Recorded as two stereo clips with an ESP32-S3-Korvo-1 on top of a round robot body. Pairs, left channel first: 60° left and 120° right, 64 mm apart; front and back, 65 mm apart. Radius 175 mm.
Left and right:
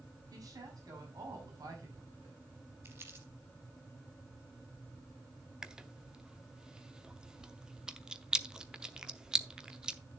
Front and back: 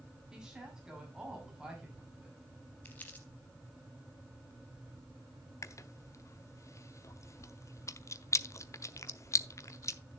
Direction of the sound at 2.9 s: 65° right.